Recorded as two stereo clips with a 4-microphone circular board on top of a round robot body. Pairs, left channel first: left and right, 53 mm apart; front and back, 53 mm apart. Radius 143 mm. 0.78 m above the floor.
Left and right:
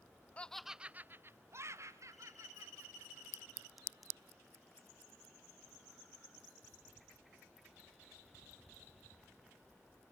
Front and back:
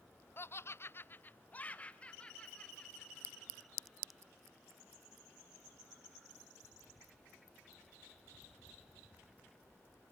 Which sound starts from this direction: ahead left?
Laughter, at 0.4 s.